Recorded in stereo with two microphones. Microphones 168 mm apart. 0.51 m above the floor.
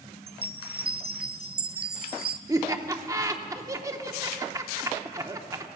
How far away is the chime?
About 0.6 m.